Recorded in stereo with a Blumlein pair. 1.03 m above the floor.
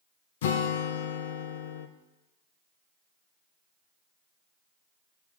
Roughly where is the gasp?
I don't hear a gasp.